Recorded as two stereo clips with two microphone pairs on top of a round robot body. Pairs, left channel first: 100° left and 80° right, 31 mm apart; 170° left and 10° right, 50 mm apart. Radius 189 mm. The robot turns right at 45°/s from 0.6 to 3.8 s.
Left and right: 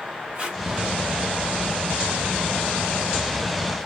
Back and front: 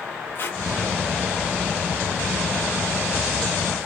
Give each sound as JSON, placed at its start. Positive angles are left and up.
{"t": 0.3, "sound": "tape being pulled", "azimuth_deg": -140, "distance_m": 2.0}